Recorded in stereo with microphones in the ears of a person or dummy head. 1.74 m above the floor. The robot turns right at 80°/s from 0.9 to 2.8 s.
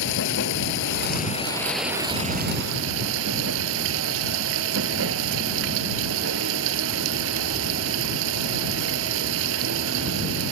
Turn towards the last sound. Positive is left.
turn(degrees=-110)